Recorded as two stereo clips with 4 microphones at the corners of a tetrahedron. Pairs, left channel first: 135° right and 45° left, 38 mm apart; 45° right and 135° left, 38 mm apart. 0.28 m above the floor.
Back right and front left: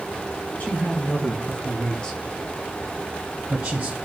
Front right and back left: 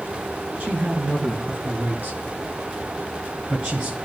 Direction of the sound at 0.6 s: 175° right.